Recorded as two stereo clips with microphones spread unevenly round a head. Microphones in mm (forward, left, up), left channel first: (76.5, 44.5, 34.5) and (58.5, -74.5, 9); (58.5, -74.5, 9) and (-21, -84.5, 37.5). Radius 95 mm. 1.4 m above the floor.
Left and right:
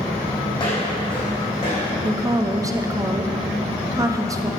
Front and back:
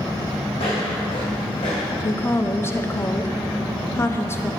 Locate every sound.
0.5 s footsteps: 45° left, 3.5 m; by 1.9 s 50° left, 4.5 m
2.0 s a woman speaking: 40° right, 0.8 m